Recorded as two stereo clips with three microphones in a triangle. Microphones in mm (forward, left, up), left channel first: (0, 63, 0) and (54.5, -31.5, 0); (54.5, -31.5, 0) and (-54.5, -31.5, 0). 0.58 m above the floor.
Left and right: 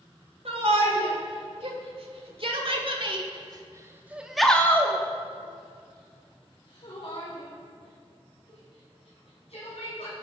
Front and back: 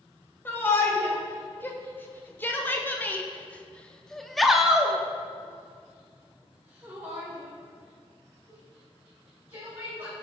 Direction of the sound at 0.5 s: 70° right.